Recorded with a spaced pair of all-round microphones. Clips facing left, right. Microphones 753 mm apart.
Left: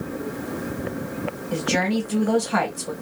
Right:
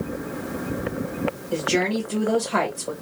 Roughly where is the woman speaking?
Left.